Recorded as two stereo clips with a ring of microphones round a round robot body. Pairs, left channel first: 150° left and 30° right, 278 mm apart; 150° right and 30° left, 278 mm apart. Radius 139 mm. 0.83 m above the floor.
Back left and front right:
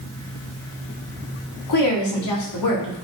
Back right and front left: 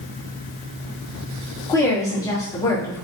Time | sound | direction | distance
1.7 | a woman speaking | 135° left | 1.7 m